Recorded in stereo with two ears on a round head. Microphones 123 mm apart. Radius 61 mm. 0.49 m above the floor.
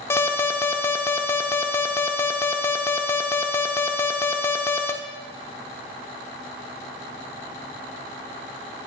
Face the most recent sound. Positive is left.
turn(degrees=20)  # may be behind; listen again after turning